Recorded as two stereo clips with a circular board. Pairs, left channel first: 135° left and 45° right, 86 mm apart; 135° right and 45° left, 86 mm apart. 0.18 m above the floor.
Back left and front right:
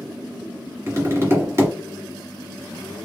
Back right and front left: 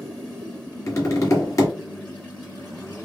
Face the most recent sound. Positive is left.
turn(degrees=-95)